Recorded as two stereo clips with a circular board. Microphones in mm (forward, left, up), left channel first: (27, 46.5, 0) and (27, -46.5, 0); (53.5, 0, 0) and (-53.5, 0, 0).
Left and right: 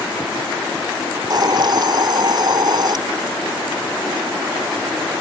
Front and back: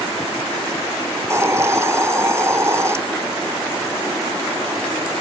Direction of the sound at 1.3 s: 120° right.